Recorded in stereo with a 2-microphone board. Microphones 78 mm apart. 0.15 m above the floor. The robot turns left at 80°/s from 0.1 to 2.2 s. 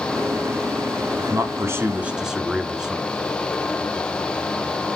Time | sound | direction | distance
1.2 | a man speaking | 85° right | 1.4 m